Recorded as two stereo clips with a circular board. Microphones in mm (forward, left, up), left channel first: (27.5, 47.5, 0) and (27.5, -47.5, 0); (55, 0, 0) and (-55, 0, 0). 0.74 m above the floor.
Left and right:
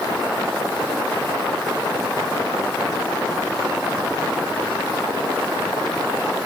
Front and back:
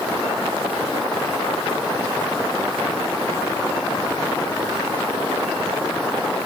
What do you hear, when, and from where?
Only background noise.